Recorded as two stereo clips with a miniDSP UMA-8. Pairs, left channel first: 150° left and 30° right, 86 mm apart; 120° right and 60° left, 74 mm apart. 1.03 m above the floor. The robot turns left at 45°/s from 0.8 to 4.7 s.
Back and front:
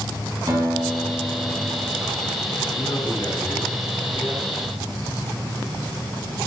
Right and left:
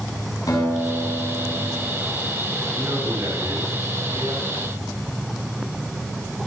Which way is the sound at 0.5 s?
85° right.